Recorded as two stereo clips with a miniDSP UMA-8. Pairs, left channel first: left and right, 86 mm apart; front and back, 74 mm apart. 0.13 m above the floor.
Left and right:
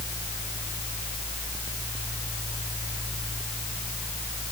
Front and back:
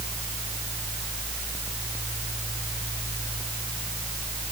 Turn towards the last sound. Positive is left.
No sound to turn to.